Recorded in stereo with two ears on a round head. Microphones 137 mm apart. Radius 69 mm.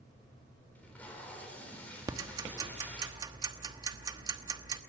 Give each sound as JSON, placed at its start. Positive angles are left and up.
{"t": 0.8, "sound": "tape being pulled", "side_deg": 10, "distance_m": 4.5}
{"t": 2.1, "sound": "ticking", "side_deg": -25, "distance_m": 1.1}